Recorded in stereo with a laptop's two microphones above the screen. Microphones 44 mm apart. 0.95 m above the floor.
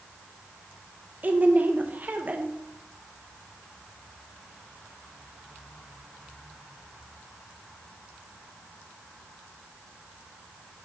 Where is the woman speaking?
40° right (ahead or behind), 1.0 m.